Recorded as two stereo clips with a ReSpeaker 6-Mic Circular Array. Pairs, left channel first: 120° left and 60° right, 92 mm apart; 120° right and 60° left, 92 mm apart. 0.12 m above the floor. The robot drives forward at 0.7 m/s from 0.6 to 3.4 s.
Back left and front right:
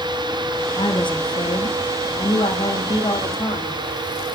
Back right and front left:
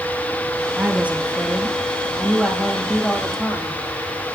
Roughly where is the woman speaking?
Behind left.